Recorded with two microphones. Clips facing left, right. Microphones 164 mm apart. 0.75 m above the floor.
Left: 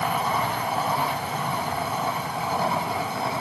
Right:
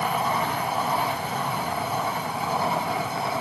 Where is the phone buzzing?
I don't hear a phone buzzing.